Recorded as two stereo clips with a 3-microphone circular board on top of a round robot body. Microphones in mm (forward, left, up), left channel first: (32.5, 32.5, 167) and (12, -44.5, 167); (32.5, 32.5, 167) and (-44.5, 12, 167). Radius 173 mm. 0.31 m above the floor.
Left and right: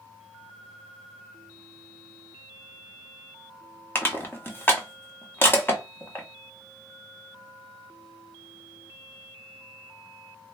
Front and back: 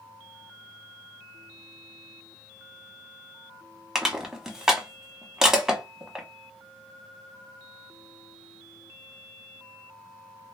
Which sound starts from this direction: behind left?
Crushing, at 4.0 s.